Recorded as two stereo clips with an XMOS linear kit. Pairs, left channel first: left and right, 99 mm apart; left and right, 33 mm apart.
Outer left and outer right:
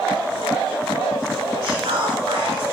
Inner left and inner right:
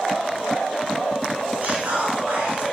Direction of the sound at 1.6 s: 60° right (ahead or behind).